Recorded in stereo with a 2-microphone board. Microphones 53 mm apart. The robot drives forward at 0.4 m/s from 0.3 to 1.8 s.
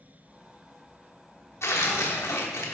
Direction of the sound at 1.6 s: 65° left (ahead or behind).